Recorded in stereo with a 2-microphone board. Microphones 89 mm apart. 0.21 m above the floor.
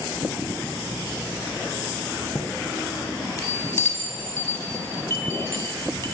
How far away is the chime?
About 0.6 m.